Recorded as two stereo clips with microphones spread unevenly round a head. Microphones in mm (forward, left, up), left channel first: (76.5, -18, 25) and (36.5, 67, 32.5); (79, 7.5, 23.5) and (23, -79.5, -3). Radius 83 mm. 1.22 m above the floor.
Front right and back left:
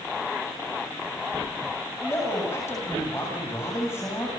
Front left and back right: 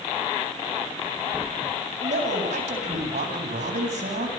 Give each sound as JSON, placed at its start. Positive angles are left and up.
{"t": 2.0, "sound": "a man speaking", "azimuth_deg": -135, "distance_m": 8.0}